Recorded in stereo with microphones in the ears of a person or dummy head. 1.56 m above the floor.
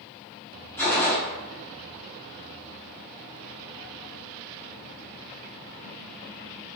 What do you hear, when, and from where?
0.8 s a gunshot: 10° left (ahead or behind), 0.9 m